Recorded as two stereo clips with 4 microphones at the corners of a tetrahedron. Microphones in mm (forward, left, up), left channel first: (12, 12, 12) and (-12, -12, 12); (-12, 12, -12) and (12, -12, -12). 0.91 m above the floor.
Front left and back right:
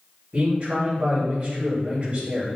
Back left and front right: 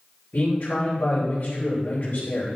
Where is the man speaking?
170° left, 3 m.